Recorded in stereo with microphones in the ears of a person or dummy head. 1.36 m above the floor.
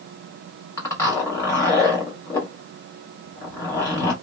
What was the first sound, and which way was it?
A zipper, 15° left (ahead or behind).